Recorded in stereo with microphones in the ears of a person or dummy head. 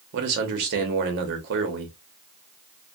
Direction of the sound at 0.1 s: 50° right (ahead or behind).